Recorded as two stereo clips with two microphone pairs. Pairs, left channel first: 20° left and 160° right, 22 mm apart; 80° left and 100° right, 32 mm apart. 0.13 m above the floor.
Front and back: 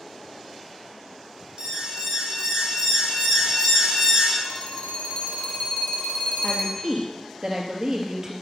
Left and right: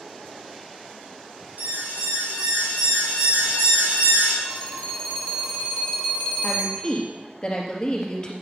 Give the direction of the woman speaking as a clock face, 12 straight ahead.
7 o'clock.